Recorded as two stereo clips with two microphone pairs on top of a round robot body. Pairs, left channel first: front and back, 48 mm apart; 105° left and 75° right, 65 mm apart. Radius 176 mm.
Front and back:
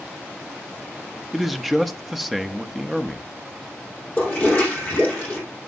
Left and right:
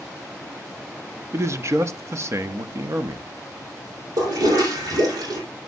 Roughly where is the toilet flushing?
Ahead right.